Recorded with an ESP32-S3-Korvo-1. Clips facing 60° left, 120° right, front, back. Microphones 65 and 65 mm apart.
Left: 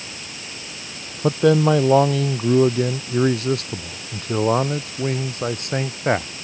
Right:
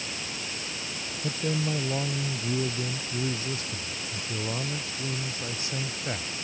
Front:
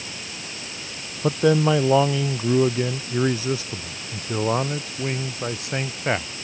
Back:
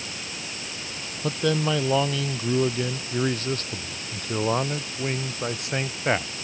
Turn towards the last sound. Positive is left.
turn(degrees=90)